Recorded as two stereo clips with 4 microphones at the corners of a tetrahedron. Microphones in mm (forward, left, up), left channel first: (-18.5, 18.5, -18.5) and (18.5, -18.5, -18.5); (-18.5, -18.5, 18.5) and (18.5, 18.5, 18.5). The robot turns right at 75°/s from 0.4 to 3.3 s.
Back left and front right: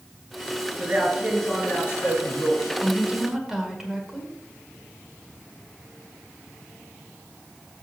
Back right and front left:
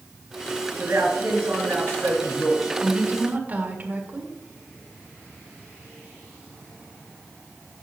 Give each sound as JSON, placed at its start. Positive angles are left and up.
{"t": 0.8, "sound": "a man speaking", "azimuth_deg": 10, "distance_m": 4.0}
{"t": 2.8, "sound": "a woman speaking", "azimuth_deg": -5, "distance_m": 1.6}